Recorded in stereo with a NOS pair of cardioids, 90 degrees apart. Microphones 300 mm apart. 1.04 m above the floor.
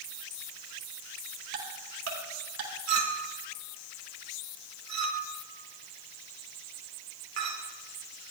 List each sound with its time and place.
1.5 s ticking: 60° right, 4.5 m
2.9 s a clink: 60° right, 2 m